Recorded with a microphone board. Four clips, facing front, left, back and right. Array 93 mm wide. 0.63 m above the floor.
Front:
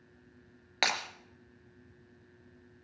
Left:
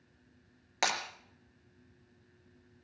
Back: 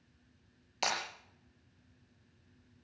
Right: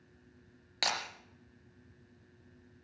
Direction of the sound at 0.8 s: 20° left.